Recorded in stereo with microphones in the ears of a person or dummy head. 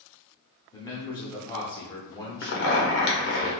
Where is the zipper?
65° left (ahead or behind), 0.8 m.